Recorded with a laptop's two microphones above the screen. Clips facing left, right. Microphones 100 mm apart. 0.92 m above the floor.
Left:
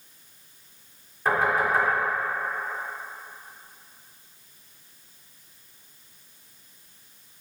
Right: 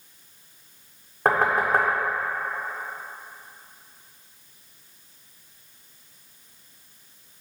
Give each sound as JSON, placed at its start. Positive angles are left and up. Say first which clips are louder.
{"t": 1.2, "sound": "knocking", "louder": "right 2 dB", "side_deg": -55, "distance_m": 1.5}